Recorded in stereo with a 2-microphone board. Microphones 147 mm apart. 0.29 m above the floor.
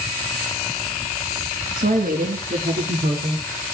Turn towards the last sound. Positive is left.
turn(degrees=-70)  # may be behind; listen again after turning